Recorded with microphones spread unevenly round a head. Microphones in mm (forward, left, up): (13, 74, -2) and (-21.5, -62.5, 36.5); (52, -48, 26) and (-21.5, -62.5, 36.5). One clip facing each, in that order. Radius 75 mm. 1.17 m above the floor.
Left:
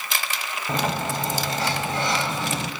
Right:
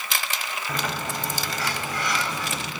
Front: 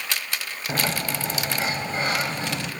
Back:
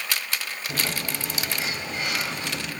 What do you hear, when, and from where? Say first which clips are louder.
0.7 s a sliding door: left 6 dB, front 5 dB; 10° left, 1.0 m